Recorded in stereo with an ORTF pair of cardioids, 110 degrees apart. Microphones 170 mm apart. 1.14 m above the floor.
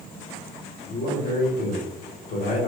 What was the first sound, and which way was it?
A man speaking, 50° left.